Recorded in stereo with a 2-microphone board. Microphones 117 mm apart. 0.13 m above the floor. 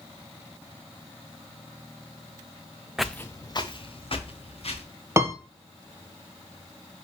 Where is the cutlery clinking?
I don't hear cutlery clinking.